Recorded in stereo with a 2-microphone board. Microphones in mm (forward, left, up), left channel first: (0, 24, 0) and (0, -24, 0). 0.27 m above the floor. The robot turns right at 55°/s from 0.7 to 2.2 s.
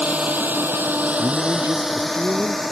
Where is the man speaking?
105° right; by 2.6 s 50° right.